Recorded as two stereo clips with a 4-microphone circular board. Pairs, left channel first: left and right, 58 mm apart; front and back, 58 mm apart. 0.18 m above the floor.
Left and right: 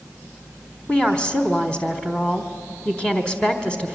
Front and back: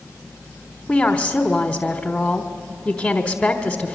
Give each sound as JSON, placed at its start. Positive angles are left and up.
{"t": 0.9, "sound": "a woman speaking", "azimuth_deg": 40, "distance_m": 1.1}